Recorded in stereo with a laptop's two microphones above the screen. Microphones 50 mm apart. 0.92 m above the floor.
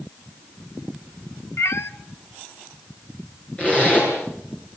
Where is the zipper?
30° left (ahead or behind), 7.5 m.